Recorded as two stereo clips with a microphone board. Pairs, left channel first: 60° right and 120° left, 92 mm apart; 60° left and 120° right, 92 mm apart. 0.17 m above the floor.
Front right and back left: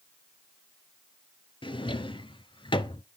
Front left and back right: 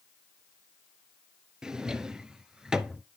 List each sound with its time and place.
1.6 s a drawer: 35° right, 0.6 m